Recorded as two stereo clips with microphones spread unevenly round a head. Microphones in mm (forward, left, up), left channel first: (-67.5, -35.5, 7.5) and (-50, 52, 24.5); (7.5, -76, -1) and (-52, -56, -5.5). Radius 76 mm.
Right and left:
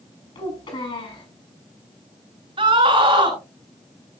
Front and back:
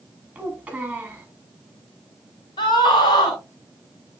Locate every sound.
0.3 s a child speaking: 125° right, 8.5 m
2.6 s a scream: 20° left, 4.5 m